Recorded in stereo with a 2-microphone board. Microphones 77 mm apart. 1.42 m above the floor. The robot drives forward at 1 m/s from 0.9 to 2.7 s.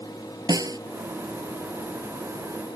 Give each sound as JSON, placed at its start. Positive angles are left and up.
{"t": 0.5, "sound": "a snare drum", "side_deg": -55}